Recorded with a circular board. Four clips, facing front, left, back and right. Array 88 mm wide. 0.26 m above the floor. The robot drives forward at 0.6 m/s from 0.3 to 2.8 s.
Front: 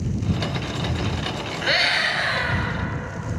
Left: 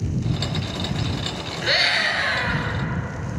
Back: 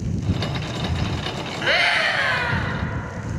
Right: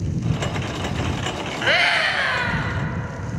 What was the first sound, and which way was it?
A scream, 105° right.